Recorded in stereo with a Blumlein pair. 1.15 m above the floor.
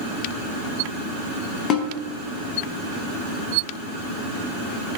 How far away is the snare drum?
About 0.8 m.